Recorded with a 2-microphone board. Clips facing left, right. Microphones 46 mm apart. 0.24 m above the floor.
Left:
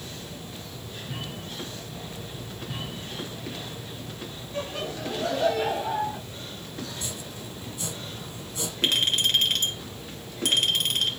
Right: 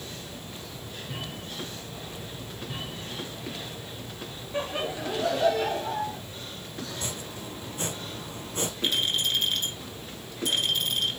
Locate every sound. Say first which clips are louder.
4.5 s laughter: right 2 dB; 25° right (ahead or behind), 1.4 m; by 6.2 s 20° left (ahead or behind), 1.5 m
6.9 s chopping: right 1 dB; 45° right (ahead or behind), 2.5 m
8.8 s a clink: left 4 dB; 70° left (ahead or behind), 4 m